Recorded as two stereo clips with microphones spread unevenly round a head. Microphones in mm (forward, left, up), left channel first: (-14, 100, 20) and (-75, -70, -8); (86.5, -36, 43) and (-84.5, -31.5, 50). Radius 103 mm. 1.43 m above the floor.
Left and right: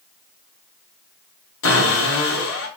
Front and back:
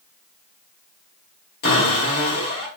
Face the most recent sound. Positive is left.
turn(degrees=40)